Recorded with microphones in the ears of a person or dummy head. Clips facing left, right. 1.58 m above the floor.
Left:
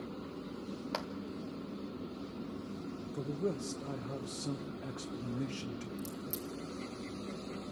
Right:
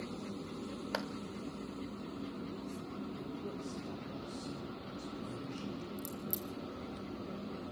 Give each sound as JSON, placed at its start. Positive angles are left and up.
{"t": 0.9, "sound": "a clap", "side_deg": -5, "distance_m": 1.0}
{"t": 3.1, "sound": "a man speaking", "side_deg": 75, "distance_m": 1.1}
{"t": 6.0, "sound": "a crack", "side_deg": -10, "distance_m": 2.5}